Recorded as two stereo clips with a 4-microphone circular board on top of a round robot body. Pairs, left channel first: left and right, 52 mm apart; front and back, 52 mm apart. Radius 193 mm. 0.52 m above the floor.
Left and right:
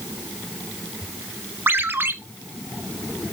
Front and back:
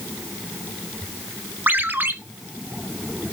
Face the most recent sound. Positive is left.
turn(degrees=-135)